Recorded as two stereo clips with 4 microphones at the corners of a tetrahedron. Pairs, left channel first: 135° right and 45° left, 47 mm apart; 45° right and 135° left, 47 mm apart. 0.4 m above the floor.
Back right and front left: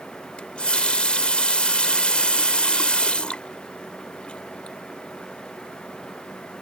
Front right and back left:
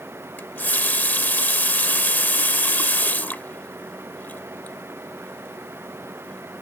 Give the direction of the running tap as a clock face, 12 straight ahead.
3 o'clock.